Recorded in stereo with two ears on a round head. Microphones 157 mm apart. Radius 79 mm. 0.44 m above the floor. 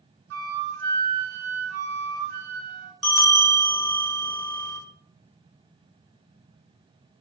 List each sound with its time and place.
0.3 s a flute: 75° right (ahead or behind), 0.6 m
3.0 s a bell: centre (ahead or behind), 0.5 m